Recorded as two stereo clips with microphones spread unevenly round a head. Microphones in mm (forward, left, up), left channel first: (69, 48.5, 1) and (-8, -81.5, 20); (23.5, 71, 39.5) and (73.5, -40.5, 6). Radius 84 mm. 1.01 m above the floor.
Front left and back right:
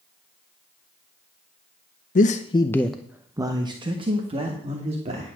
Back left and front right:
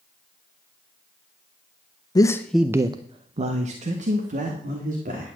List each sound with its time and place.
2.1 s a man speaking: 50° left, 0.6 m; by 5.4 s 70° right, 2.5 m